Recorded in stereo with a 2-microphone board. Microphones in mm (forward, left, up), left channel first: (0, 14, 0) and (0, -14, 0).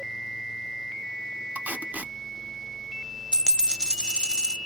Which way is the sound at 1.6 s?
85° right.